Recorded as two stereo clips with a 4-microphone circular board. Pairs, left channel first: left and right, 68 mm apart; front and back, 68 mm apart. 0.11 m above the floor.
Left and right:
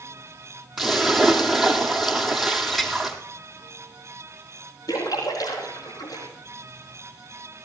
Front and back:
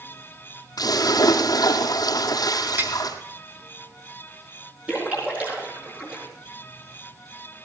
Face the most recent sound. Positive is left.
turn(degrees=110)